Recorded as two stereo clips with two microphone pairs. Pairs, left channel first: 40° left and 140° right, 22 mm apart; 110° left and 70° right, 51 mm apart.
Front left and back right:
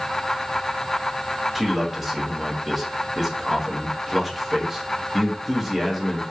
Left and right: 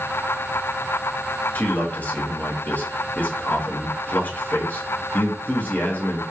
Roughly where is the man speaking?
Behind left.